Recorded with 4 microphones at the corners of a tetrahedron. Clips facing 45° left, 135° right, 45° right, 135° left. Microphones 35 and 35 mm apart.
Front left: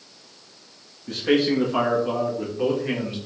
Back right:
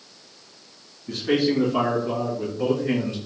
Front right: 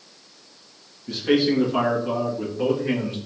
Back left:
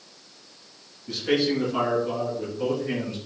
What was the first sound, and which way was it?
A man speaking, 40° left.